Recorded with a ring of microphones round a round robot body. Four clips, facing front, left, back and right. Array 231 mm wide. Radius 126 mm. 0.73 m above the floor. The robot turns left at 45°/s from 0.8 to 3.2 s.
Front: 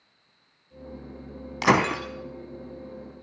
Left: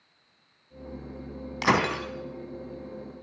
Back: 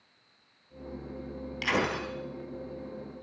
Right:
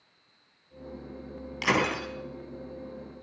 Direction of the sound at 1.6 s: 30° left.